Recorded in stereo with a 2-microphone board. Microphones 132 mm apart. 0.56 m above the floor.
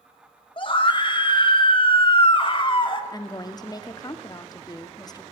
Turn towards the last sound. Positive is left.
turn(degrees=30)  # may be behind; listen again after turning